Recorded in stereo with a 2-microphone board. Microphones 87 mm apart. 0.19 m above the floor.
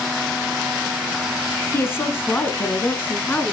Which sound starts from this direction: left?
A woman speaking, at 1.7 s.